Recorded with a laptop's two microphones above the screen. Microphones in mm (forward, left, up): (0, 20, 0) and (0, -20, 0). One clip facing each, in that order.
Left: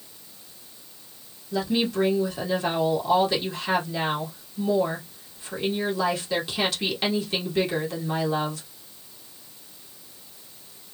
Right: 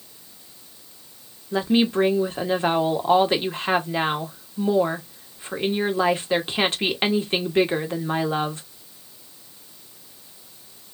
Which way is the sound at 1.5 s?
35° right (ahead or behind).